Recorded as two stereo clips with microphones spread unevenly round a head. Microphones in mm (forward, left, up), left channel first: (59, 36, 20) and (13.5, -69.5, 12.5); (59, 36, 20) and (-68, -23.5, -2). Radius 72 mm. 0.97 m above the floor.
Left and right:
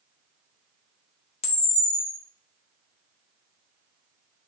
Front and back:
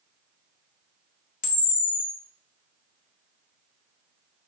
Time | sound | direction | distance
1.4 | a camera shutter | 45° left | 0.6 m